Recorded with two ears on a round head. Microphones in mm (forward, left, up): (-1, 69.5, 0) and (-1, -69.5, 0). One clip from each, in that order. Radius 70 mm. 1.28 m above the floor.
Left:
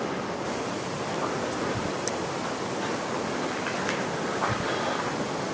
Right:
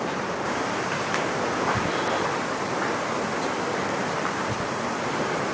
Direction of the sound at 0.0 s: 40° right (ahead or behind).